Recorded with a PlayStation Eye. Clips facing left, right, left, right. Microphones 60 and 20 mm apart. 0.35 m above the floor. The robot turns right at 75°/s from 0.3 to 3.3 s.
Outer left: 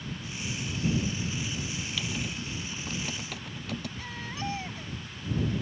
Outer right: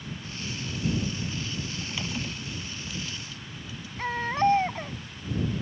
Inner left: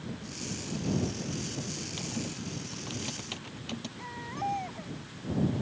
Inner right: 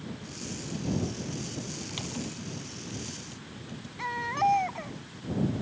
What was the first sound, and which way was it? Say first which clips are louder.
Typing on a keyboard: outer right 2 dB, even; 35° right (ahead or behind).